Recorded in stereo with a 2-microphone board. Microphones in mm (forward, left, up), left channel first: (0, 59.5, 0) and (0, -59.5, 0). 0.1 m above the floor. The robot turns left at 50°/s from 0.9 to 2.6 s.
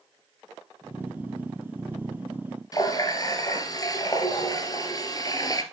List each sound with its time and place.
2.7 s a running tap: 30° left (ahead or behind), 1.3 m